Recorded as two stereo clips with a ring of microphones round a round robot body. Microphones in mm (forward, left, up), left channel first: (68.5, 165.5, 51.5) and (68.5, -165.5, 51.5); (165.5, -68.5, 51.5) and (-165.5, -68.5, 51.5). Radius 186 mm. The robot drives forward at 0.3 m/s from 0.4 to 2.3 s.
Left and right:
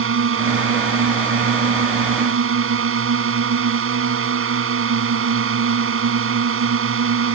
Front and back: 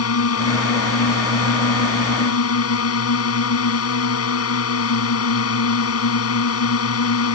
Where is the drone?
40° right.